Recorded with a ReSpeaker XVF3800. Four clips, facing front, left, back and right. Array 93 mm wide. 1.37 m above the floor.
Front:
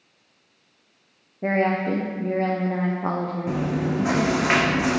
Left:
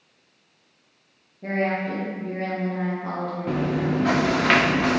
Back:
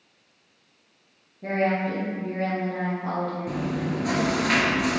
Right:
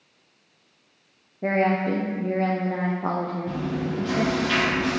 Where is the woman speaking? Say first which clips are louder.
Right 3 dB, front 3 dB; 40° right, 1.0 m.